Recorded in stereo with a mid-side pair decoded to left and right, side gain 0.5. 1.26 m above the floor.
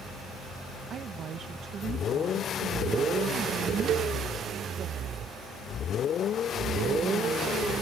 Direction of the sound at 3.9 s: 60° right.